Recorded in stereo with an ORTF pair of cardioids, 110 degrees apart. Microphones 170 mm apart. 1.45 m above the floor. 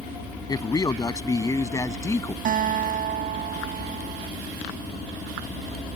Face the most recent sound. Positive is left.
turn(degrees=-55)